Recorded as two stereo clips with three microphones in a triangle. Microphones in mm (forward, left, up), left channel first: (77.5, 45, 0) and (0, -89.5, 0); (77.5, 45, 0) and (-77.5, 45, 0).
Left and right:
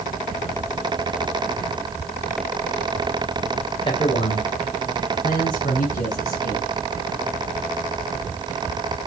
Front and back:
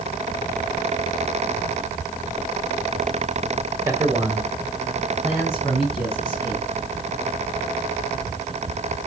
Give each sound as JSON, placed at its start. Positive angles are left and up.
{"t": 3.9, "sound": "a man speaking", "azimuth_deg": 110, "distance_m": 2.0}